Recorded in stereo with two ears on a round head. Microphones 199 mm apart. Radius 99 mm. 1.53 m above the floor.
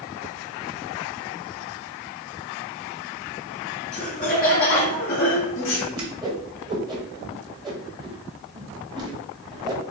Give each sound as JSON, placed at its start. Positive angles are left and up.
{"t": 3.9, "sound": "laughter", "side_deg": 30, "distance_m": 1.3}
{"t": 5.9, "sound": "a whoosh", "side_deg": -20, "distance_m": 1.0}